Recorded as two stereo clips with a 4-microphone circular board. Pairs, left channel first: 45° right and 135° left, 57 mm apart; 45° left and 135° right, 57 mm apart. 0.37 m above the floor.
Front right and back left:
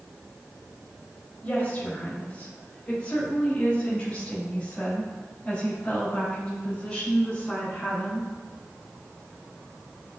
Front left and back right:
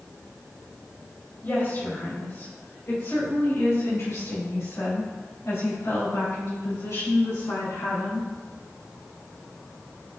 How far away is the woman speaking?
About 2 m.